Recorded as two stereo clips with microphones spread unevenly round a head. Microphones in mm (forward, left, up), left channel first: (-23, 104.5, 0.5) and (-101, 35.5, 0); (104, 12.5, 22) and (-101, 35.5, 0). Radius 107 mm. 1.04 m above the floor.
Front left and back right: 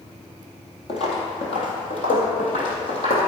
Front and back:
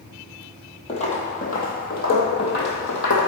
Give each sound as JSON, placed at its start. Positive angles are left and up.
{"t": 0.9, "sound": "footsteps", "azimuth_deg": 45, "distance_m": 2.0}